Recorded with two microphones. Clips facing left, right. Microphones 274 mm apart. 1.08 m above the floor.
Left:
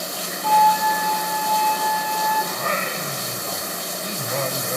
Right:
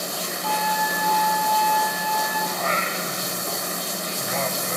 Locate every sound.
0.4 s a flute: 5° right (ahead or behind), 6.5 m
2.5 s singing: 50° left (ahead or behind), 1.4 m